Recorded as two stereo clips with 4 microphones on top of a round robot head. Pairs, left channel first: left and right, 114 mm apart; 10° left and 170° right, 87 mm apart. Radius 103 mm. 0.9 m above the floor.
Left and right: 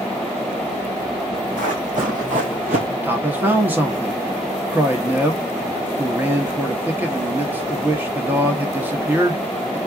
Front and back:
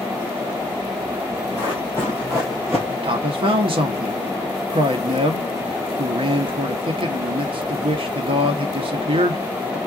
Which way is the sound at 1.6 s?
95° right.